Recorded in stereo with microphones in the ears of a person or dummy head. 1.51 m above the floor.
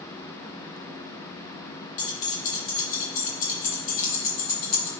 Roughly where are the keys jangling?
Left.